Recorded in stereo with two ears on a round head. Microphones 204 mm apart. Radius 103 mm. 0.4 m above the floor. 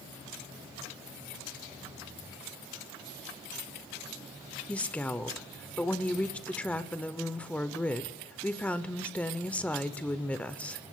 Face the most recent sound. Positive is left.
turn(degrees=5)  # may be behind; listen again after turning